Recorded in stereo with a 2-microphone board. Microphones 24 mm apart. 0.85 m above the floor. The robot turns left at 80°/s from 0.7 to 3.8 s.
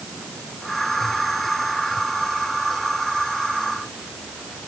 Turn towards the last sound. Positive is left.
No sound to turn to.